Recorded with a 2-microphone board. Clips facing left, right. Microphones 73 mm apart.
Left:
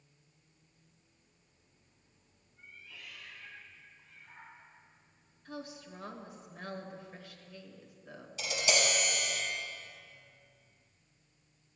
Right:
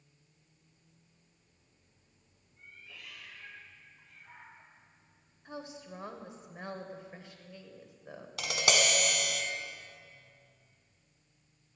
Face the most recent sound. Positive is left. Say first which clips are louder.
# right 2 dB
turn(degrees=-70)  # may be behind; listen again after turning